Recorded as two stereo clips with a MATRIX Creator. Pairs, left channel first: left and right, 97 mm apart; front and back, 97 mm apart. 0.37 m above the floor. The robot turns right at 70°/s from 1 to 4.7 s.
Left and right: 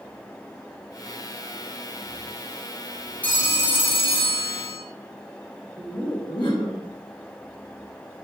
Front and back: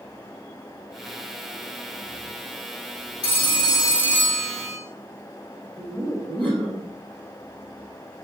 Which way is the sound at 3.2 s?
20° left.